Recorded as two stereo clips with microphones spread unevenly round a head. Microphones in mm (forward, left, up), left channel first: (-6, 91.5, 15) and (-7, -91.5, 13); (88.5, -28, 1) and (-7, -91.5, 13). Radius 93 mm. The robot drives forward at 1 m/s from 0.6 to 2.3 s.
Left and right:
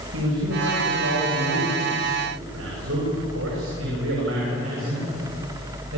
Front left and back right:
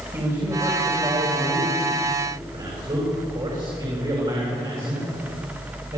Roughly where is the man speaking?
Right.